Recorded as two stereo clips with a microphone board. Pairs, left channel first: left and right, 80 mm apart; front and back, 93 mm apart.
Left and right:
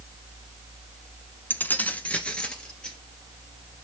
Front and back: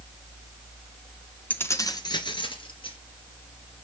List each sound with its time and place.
1.5 s keys jangling: 55° left, 0.9 m; by 3.0 s 10° left, 2.5 m